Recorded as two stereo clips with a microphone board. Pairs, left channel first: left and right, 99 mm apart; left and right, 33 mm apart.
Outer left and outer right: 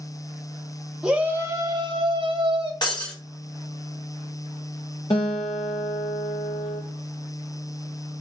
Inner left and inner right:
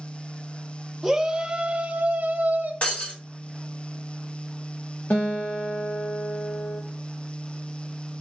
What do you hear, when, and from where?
1.0 s a shout: 5° right (ahead or behind), 1.1 m; by 2.7 s 70° right (ahead or behind), 1.5 m
2.8 s breaking glass: 50° left (ahead or behind), 2.5 m
5.1 s a guitar: 75° left (ahead or behind), 4.5 m